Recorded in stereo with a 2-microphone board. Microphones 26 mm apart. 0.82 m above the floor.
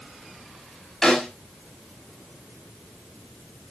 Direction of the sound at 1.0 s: 20° left (ahead or behind).